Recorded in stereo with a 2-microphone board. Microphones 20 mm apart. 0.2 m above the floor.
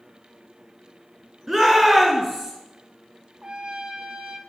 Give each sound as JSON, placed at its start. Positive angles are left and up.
{"t": 1.5, "sound": "a shout", "side_deg": -15, "distance_m": 3.0}
{"t": 3.4, "sound": "a trumpet", "side_deg": -40, "distance_m": 0.7}